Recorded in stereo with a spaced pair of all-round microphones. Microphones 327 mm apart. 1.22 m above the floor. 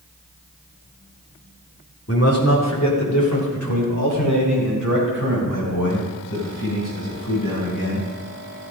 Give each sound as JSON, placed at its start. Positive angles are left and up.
{"t": 2.1, "sound": "a man speaking", "side_deg": 45, "distance_m": 2.5}